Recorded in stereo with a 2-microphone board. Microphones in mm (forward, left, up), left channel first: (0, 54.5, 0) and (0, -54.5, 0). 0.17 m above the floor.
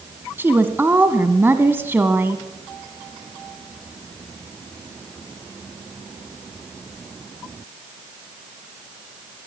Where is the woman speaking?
20° right (ahead or behind), 1.0 m.